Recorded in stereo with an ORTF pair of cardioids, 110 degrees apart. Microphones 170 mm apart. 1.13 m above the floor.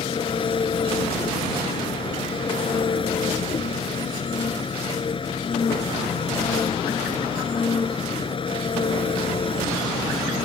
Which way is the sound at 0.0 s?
30° left.